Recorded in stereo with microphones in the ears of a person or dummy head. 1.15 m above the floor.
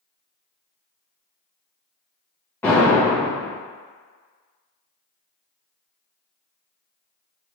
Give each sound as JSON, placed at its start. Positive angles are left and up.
{"t": 2.6, "sound": "an explosion", "side_deg": 10, "distance_m": 1.2}